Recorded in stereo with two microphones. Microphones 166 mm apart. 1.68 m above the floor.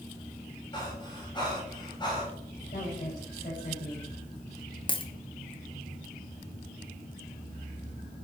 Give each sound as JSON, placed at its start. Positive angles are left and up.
{"t": 0.7, "sound": "breathing", "side_deg": 25, "distance_m": 5.0}
{"t": 2.7, "sound": "a woman speaking", "side_deg": 50, "distance_m": 6.5}
{"t": 4.9, "sound": "a dropped coin", "side_deg": 30, "distance_m": 1.2}